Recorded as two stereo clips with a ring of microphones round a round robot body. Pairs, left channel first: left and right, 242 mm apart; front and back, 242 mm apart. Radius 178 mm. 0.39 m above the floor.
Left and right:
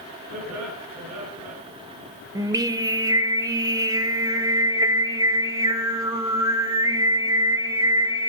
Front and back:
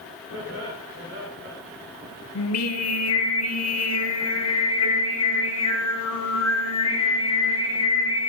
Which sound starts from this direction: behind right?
Laughter, at 0.3 s.